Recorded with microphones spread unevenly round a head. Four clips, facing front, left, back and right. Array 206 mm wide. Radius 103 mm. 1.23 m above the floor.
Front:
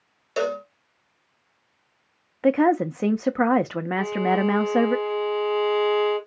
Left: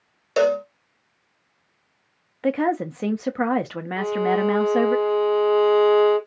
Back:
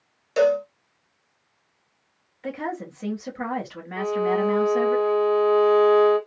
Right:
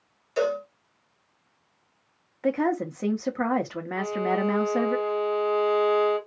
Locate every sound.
0.4 s a cowbell: 95° left, 0.8 m
2.4 s a woman speaking: 15° left, 0.5 m
4.0 s a violin: 145° left, 1.7 m